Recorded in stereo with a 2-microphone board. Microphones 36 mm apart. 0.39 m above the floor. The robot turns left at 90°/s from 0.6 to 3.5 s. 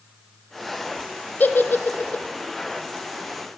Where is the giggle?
55° left (ahead or behind), 0.7 m; by 2.2 s 40° left (ahead or behind), 0.7 m.